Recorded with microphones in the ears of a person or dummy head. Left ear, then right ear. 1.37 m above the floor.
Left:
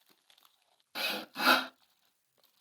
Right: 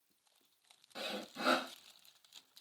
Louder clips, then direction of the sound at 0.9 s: Left 8 dB; 30° left (ahead or behind).